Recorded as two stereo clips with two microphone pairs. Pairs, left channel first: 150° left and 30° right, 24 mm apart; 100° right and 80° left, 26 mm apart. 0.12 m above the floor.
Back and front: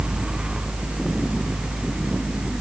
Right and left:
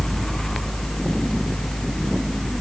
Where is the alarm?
I don't hear an alarm.